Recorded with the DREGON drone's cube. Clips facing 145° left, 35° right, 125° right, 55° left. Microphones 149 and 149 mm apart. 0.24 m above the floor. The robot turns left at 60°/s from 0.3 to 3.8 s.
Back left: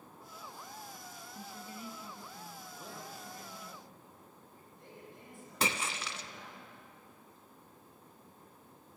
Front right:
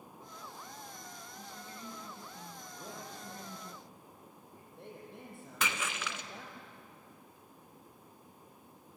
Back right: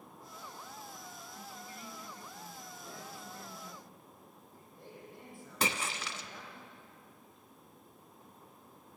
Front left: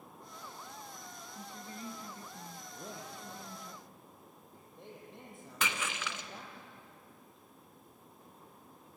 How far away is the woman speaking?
About 1.4 m.